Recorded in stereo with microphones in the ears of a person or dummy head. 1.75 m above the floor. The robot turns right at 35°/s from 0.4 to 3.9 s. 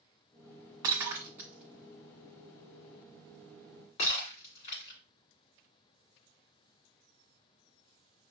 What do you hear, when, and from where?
0.8 s breaking glass: 20° right (ahead or behind), 1.6 m; by 5.0 s 25° left (ahead or behind), 1.6 m